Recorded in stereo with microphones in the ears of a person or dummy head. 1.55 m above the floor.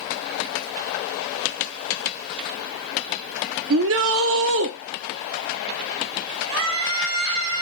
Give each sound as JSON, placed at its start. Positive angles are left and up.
{"t": 3.7, "sound": "a shout", "side_deg": -65, "distance_m": 0.8}
{"t": 6.5, "sound": "a scream", "side_deg": -70, "distance_m": 2.5}